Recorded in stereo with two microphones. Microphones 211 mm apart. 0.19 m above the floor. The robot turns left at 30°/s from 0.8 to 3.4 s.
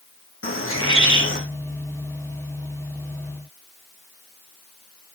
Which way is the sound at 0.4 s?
80° left.